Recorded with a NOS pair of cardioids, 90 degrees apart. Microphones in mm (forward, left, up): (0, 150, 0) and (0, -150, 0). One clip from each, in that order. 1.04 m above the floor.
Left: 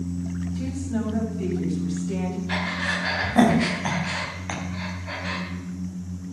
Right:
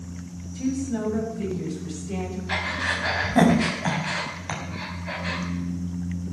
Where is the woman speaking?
15° right, 7.5 m; by 2.4 s 10° right, 6.5 m.